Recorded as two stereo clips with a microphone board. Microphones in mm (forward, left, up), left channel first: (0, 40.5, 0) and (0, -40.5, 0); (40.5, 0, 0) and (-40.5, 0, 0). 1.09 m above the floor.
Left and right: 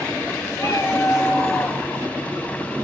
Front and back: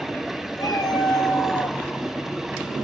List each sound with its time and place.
0.6 s a cat meowing: 35° left, 6.5 m; by 1.8 s 40° left, 6 m